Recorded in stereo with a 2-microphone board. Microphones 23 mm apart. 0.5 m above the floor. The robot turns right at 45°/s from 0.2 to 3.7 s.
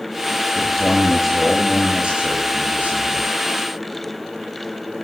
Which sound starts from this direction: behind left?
A man speaking, at 0.6 s.